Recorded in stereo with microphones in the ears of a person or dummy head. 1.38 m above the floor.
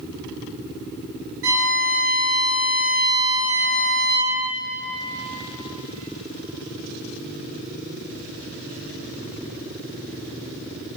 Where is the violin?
60° right (ahead or behind), 3 m.